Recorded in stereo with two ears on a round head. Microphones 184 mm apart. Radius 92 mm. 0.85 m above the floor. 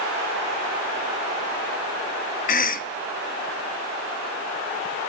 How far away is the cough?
About 0.8 m.